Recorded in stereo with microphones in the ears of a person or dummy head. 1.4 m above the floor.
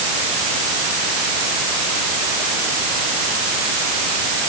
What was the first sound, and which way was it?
Only background noise.